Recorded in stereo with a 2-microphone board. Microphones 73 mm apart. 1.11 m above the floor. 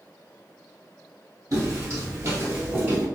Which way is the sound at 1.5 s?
45° right (ahead or behind).